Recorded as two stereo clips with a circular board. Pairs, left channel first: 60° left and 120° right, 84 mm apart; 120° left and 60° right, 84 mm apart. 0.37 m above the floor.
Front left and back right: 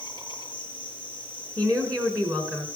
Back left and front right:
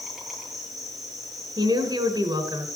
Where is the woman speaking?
75° right, 3.5 m.